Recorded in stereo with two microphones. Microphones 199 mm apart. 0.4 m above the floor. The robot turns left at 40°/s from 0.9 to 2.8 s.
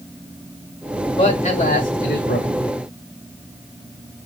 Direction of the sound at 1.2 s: 140° left.